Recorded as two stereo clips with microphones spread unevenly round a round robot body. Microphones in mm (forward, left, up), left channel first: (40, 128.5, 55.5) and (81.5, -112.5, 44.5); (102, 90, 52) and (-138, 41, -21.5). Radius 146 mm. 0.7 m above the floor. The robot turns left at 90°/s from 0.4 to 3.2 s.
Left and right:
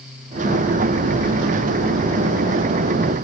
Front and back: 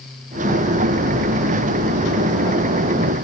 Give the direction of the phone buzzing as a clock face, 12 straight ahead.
I don't hear a phone buzzing.